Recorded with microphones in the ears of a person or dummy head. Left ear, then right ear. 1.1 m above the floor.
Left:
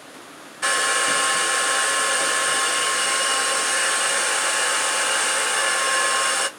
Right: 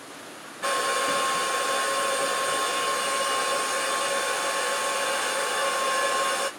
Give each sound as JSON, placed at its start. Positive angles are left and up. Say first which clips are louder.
{"t": 0.6, "sound": "a hair dryer", "louder": "left 4 dB", "side_deg": 40, "distance_m": 0.6}